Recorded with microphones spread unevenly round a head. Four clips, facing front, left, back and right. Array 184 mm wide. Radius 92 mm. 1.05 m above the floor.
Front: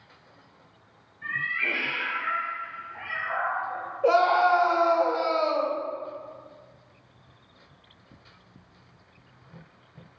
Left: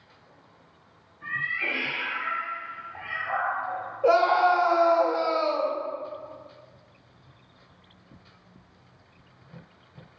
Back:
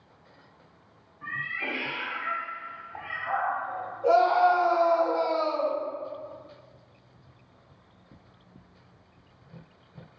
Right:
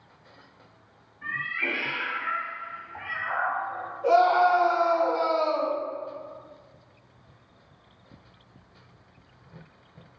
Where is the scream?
50° left, 1.3 m.